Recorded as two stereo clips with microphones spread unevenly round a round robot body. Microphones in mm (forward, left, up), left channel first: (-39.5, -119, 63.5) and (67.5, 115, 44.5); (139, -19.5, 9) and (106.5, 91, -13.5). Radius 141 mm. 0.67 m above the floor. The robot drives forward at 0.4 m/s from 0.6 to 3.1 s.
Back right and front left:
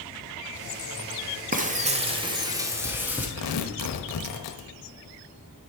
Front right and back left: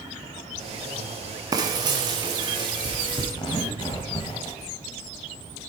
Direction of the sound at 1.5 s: 100° left.